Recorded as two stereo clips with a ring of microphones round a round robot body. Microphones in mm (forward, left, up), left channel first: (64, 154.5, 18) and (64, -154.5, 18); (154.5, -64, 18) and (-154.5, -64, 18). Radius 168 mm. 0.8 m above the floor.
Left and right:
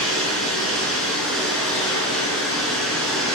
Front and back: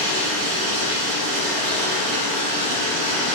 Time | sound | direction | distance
0.0 | running water | straight behind | 1.9 m